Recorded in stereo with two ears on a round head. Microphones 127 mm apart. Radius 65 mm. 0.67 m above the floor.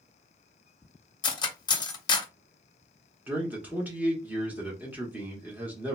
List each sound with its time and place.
1.2 s cutlery clinking: 30° left (ahead or behind), 0.6 m
3.3 s a man speaking: 10° right (ahead or behind), 1.0 m